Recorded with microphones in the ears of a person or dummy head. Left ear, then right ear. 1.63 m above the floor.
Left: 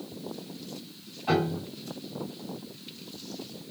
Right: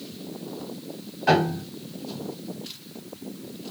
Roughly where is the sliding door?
No sliding door in this recording.